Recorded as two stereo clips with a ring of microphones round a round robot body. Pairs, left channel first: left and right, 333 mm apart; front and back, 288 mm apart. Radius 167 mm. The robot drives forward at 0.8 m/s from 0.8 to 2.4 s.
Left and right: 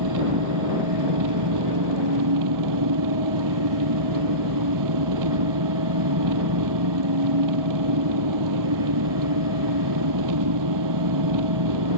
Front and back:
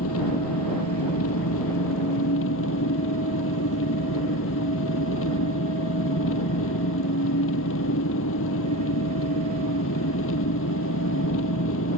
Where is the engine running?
55° right.